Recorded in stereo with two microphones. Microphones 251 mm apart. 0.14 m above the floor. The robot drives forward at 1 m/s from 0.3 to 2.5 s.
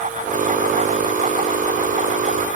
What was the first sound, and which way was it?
Only background noise.